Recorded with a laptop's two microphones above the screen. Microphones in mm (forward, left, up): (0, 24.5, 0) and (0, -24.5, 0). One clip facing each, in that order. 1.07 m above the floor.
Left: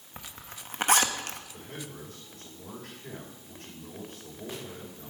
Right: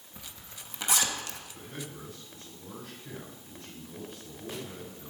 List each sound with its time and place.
0.2 s a zipper: 50° left (ahead or behind), 0.9 m
1.5 s a man speaking: 75° left (ahead or behind), 5 m